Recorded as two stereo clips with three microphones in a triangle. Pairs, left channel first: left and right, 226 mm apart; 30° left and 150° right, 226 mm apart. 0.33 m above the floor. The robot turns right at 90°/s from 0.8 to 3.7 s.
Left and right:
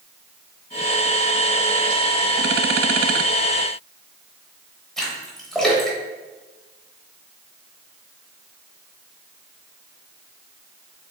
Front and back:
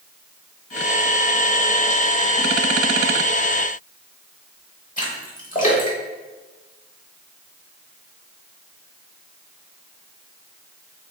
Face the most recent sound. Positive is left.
turn(degrees=0)